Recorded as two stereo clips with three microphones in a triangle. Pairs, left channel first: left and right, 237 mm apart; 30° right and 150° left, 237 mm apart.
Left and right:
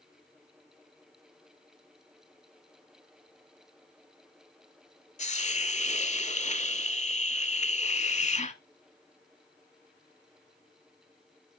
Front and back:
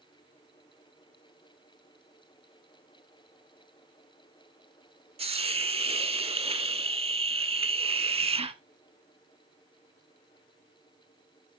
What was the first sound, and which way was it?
A hiss, 110° left.